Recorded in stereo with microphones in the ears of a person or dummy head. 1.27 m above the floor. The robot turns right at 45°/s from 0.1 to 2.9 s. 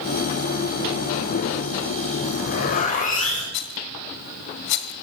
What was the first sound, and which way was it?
A zipper, 80° left.